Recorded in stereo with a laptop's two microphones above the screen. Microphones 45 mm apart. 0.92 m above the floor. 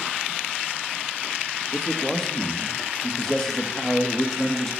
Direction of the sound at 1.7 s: 10° left (ahead or behind).